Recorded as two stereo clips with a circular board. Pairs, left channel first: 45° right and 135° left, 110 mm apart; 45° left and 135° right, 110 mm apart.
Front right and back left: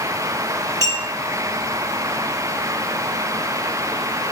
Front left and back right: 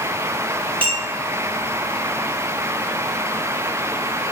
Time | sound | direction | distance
0.8 | a clink | 105° right | 3.5 m